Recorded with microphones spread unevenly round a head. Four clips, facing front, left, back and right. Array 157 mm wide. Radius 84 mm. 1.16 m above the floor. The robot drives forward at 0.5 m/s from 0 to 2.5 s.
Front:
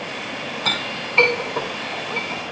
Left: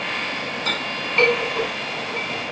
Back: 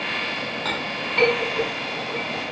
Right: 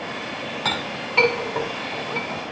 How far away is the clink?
About 5.5 m.